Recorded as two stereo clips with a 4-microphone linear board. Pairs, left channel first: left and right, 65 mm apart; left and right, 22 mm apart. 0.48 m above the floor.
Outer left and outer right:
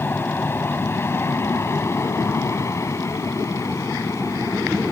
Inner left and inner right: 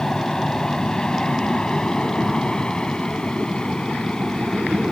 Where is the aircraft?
35° left (ahead or behind); by 4.9 s 55° left (ahead or behind).